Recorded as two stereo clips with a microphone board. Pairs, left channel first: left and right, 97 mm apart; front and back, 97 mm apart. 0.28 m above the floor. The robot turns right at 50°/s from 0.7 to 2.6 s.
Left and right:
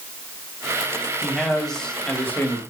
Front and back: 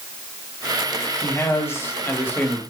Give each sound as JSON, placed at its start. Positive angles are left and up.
{"t": 1.2, "sound": "a man speaking", "azimuth_deg": -15, "distance_m": 1.6}